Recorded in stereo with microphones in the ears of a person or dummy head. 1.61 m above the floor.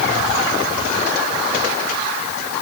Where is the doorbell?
I don't hear a doorbell.